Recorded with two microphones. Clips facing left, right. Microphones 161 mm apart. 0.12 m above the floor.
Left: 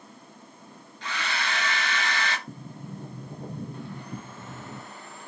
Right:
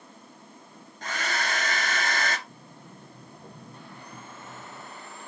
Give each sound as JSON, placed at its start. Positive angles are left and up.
{"t": 1.0, "sound": "a hair dryer", "side_deg": -45, "distance_m": 1.8}
{"t": 2.5, "sound": "a sliding door", "side_deg": 65, "distance_m": 1.6}